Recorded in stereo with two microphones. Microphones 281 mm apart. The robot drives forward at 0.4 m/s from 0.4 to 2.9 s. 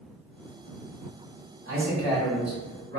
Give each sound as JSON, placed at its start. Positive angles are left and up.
{"t": 1.6, "sound": "a man speaking", "side_deg": -50, "distance_m": 1.6}